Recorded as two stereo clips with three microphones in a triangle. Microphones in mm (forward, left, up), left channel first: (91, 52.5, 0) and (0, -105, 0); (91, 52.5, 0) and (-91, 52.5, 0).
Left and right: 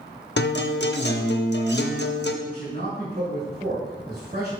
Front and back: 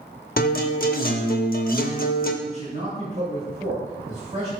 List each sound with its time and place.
0.4 s a guitar: 40° left, 0.6 m
2.4 s a man speaking: 130° right, 1.9 m